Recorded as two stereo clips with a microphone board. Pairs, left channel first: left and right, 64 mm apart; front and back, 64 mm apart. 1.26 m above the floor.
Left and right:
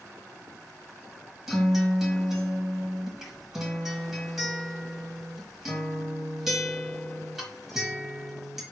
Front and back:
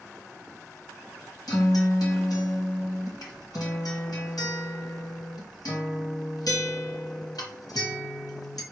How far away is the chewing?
No chewing in this recording.